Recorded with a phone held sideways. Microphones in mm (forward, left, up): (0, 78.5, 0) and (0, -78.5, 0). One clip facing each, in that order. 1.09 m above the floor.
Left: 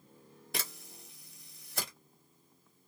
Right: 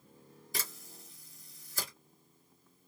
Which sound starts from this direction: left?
A camera shutter, at 0.5 s.